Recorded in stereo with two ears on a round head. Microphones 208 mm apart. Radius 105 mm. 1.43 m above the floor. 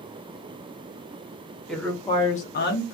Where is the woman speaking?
Centre (ahead or behind), 0.9 m; by 3.0 s 60° left (ahead or behind), 0.7 m.